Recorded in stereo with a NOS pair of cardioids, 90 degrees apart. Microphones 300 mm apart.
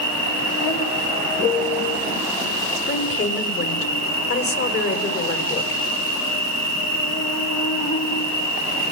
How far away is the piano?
About 1.9 m.